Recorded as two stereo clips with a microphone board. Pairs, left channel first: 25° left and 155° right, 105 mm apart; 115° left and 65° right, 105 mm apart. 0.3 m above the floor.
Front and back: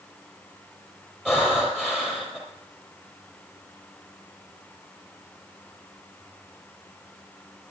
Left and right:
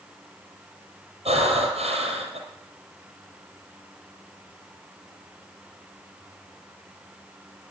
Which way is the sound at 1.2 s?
75° right.